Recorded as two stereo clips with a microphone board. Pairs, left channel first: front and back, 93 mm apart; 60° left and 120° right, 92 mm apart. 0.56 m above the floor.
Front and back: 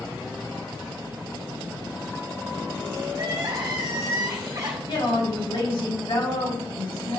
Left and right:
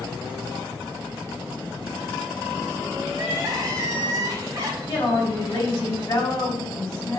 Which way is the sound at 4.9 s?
5° left.